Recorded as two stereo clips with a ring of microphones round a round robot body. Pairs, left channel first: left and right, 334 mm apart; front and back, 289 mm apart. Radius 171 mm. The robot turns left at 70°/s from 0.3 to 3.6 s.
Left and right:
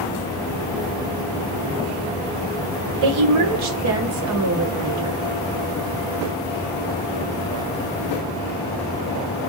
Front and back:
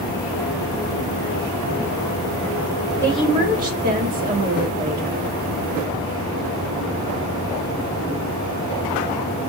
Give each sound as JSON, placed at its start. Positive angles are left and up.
{"t": 3.0, "sound": "a woman speaking", "azimuth_deg": -80, "distance_m": 1.5}